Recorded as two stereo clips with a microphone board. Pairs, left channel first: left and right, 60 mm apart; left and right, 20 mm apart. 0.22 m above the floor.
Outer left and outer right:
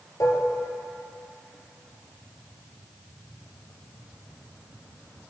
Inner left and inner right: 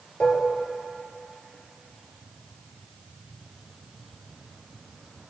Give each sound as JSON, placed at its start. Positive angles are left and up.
{"t": 0.2, "sound": "dishes clattering", "side_deg": 65, "distance_m": 2.5}